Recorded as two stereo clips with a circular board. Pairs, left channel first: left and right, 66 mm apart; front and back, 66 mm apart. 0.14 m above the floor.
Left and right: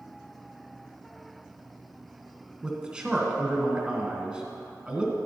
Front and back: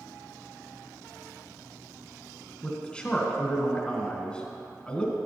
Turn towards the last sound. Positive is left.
turn(degrees=-40)